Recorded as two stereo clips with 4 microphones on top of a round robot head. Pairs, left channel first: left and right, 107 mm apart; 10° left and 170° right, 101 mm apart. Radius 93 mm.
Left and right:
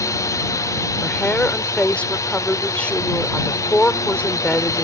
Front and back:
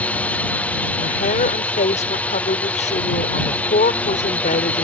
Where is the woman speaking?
10° left.